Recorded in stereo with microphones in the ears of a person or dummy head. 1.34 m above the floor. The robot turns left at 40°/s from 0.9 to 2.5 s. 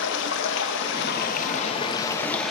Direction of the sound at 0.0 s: 65° left.